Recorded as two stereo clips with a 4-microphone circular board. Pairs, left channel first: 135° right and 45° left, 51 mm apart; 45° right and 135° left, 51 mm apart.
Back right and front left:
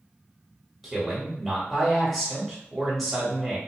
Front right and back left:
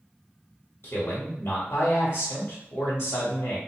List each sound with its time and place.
0.8 s a man speaking: 25° right, 1.4 m